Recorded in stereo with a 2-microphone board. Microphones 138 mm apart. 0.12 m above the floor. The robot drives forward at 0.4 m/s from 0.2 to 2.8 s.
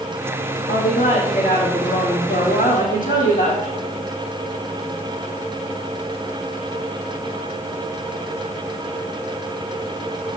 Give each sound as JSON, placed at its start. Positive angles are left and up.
{"t": 0.7, "sound": "a woman speaking", "side_deg": 75, "distance_m": 4.5}